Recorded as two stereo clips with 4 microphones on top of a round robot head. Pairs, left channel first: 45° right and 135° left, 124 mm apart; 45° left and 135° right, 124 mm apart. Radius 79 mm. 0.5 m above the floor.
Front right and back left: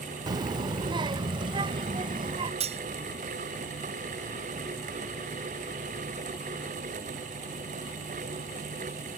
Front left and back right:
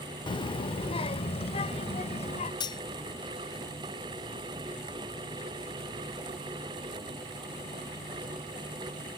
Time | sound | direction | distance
0.3 | a child speaking | 85° left | ?
2.6 | cutlery clinking | 100° left | ?